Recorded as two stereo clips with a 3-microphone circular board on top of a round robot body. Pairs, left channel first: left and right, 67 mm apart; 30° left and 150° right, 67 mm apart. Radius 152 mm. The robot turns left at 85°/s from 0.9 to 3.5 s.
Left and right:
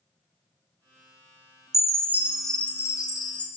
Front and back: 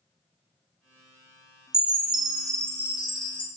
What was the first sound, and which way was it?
A chime, 120° right.